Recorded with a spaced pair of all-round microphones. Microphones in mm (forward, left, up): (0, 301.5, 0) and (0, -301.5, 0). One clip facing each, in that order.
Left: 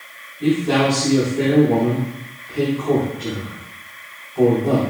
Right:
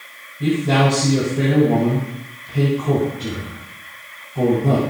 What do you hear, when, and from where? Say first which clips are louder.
0.4 s a man speaking: left 1 dB; 60° right (ahead or behind), 4 m